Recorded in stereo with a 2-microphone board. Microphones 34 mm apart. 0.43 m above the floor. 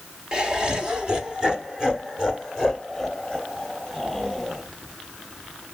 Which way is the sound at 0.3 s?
25° right (ahead or behind).